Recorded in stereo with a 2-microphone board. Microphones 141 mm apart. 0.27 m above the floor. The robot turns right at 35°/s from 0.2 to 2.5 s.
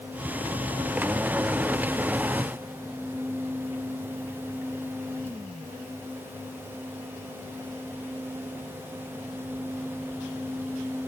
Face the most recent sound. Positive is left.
No sound to turn to.